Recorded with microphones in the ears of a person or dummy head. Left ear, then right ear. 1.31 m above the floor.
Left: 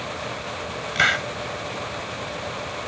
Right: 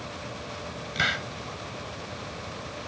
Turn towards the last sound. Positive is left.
turn(degrees=30)  # may be behind; listen again after turning